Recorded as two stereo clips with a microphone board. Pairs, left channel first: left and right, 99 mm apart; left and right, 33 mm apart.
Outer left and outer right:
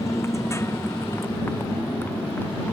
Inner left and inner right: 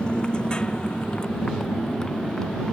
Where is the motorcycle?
30° left (ahead or behind); by 2.7 s 20° left (ahead or behind).